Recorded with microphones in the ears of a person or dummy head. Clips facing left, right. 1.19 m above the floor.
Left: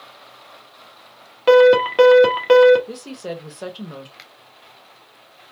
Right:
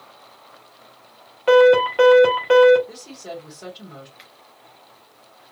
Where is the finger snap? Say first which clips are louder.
Left 1 dB; 30° left (ahead or behind), 1.2 m.